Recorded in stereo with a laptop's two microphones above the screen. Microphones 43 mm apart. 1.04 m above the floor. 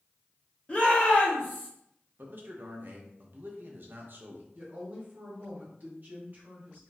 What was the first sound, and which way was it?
A shout, 30° left (ahead or behind).